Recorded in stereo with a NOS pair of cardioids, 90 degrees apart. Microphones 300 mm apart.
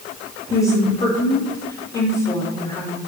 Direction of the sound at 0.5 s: 15° left.